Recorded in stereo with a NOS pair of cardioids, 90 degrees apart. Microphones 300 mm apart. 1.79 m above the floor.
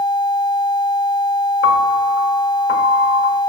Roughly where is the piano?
Ahead left.